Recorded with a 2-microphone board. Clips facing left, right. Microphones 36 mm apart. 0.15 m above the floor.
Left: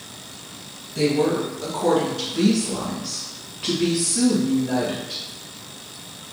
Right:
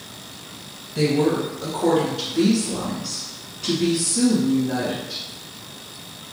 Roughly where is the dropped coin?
I don't hear a dropped coin.